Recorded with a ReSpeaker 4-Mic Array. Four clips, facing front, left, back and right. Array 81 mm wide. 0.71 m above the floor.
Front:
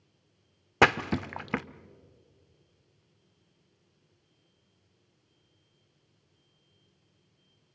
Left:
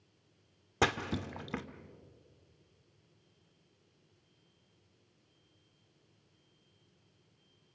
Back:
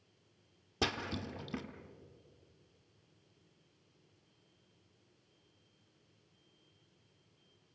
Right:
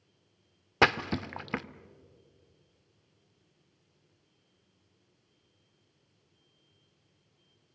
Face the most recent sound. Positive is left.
turn(degrees=-25)